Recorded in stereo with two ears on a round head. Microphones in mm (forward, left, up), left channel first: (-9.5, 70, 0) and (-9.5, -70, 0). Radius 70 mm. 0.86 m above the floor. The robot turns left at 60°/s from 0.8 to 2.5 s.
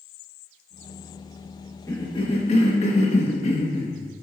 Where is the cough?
155° left, 1.2 m; by 4.0 s 120° left, 1.2 m.